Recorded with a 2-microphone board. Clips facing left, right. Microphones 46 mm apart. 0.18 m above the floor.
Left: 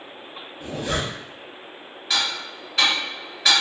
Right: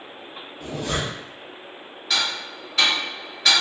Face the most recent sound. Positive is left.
turn(degrees=0)  # may be behind; listen again after turning